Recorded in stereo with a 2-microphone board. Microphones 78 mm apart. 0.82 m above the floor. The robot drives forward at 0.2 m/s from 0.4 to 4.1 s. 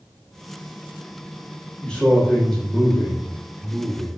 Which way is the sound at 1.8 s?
10° left (ahead or behind).